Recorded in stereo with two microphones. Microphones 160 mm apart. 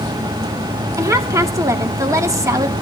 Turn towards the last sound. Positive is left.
turn(degrees=-20)  # may be behind; listen again after turning